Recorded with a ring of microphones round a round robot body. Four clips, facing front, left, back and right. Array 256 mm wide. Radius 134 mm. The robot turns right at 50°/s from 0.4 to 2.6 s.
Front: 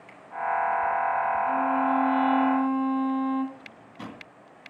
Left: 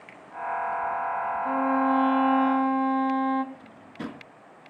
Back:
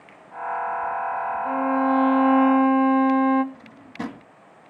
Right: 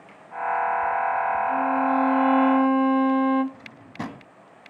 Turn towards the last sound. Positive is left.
turn(degrees=-130)